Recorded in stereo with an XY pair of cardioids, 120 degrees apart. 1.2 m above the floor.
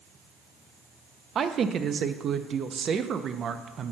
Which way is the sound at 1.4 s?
45° right.